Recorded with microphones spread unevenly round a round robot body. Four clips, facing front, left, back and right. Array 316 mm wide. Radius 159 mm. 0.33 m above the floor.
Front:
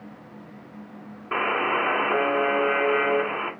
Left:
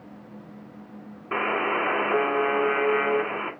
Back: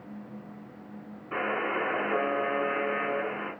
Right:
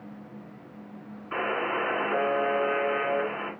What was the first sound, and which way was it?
A buzzer, 35° left.